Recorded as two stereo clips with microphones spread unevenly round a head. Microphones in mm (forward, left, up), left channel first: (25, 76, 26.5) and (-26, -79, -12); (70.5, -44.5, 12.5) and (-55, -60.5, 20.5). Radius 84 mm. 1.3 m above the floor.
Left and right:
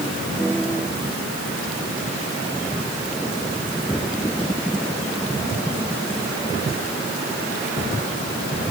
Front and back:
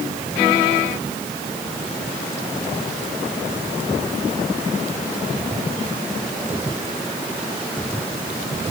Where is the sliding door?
I don't hear a sliding door.